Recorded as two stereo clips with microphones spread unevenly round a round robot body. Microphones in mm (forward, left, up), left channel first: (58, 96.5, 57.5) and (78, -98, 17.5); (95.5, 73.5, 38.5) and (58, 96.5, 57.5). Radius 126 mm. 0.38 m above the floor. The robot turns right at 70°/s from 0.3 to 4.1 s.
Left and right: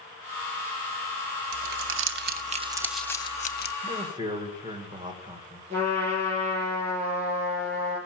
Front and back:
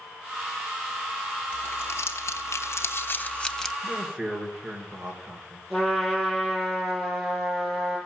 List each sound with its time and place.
1.5 s crumpling: 95° right, 0.8 m; by 3.7 s 60° left, 0.8 m
3.8 s a man speaking: 135° right, 1.6 m; by 5.6 s 120° right, 1.6 m
5.7 s a trumpet: 145° right, 6.5 m